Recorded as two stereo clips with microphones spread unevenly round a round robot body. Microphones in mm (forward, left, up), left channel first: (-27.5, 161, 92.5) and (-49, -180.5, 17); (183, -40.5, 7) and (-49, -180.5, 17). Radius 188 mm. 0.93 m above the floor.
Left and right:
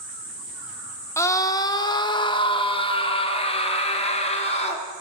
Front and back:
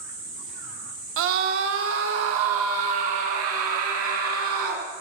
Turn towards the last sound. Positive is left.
turn(degrees=160)